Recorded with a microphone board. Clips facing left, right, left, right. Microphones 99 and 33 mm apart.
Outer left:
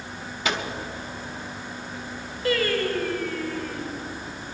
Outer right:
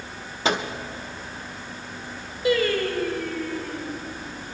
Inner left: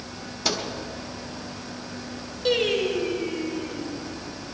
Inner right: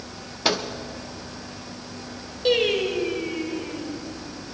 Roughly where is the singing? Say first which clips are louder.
Outer right 2 dB, inner right 2 dB; centre.